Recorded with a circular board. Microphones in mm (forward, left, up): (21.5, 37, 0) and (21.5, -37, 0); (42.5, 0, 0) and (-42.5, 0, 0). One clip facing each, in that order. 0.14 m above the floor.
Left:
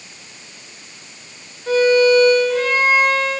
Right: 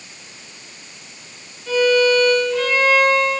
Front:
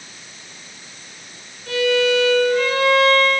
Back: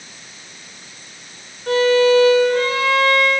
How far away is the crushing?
I don't hear crushing.